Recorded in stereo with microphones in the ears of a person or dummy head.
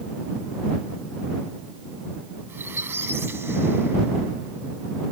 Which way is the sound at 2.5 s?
20° right (ahead or behind).